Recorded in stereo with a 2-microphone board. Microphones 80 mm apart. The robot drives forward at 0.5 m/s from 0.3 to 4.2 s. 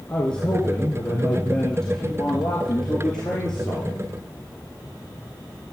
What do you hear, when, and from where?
0.1 s a man speaking: 10° left (ahead or behind), 2.5 m; by 3.9 s 5° left (ahead or behind), 4.5 m